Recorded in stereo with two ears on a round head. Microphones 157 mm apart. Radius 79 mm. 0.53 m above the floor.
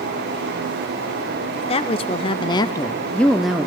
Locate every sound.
1.7 s a woman speaking: 30° left (ahead or behind), 1.1 m; by 3.7 s 5° right (ahead or behind), 0.8 m